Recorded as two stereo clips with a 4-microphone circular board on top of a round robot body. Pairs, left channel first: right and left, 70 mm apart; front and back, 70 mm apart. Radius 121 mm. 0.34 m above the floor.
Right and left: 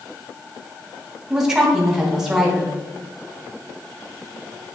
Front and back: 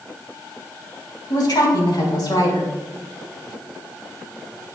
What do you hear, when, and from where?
1.3 s a woman speaking: 10° left, 4 m